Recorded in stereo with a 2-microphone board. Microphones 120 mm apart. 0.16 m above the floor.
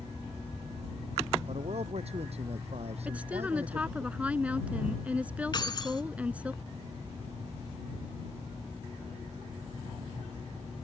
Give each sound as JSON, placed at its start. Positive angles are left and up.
{"t": 1.5, "sound": "a man speaking", "side_deg": -60}
{"t": 3.0, "sound": "a woman speaking", "side_deg": -10}
{"t": 5.5, "sound": "keys jangling", "side_deg": 35}